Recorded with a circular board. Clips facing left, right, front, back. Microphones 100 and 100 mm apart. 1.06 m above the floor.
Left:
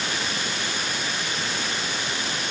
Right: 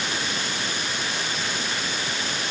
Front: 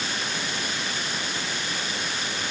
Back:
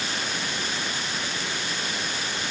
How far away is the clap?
No clap in this recording.